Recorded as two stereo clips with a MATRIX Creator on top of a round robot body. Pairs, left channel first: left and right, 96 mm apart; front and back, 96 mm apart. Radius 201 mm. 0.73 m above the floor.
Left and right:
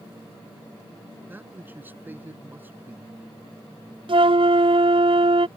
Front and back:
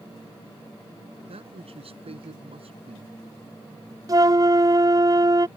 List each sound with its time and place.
1.3 s a man speaking: 160° right
4.1 s a flute: 125° right